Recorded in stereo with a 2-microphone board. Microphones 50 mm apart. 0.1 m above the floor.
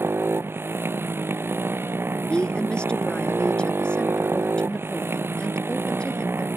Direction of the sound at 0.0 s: 50° right (ahead or behind).